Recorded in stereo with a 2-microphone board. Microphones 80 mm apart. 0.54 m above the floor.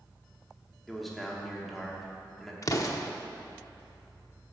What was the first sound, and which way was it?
A man speaking, centre (ahead or behind).